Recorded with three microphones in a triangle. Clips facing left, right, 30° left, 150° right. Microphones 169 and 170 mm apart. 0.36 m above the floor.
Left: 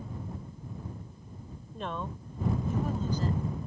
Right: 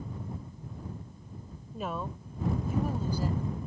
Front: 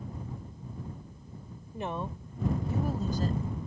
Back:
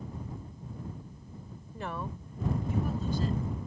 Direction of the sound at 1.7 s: 15° right.